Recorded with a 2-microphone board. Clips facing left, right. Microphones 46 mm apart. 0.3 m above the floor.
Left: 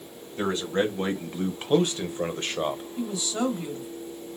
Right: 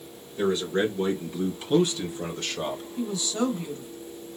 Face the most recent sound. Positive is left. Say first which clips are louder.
# right 3 dB
turn(degrees=15)  # may be behind; listen again after turning